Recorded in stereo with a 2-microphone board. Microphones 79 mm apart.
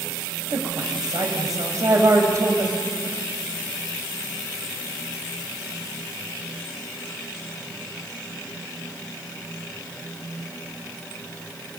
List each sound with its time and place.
0.5 s a woman speaking: 60° right (ahead or behind), 4.5 m; by 2.8 s 35° right (ahead or behind), 4 m